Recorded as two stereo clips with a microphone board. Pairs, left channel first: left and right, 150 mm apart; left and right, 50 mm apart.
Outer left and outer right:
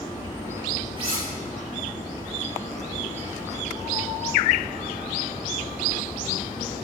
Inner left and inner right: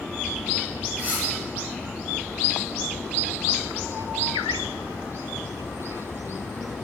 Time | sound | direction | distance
1.0 | cutlery clinking | 35° right (ahead or behind) | 6 m